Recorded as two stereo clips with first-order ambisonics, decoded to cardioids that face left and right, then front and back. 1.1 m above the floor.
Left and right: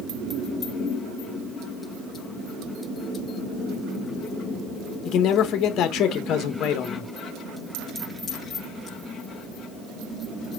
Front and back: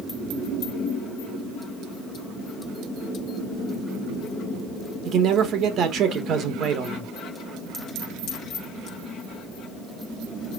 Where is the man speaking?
135° left, 1.6 m.